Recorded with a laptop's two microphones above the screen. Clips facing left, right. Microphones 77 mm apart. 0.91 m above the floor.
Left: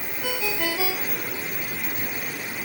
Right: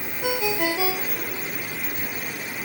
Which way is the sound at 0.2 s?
15° right (ahead or behind).